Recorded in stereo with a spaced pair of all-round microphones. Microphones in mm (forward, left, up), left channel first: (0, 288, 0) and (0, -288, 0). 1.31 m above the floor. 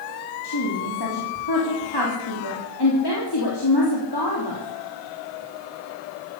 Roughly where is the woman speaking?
Left.